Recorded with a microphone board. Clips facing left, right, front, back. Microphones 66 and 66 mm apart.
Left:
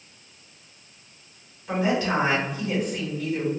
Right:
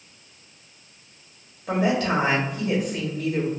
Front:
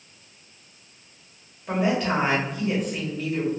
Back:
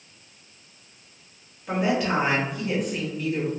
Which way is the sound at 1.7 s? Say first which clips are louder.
Right 1 dB, even; 90° right.